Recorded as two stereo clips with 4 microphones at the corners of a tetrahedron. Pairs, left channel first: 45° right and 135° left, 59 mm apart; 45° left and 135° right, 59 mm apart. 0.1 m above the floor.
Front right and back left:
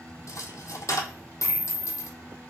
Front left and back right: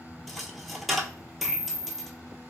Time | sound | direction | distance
0.3 | a dropped coin | 45° right | 0.6 m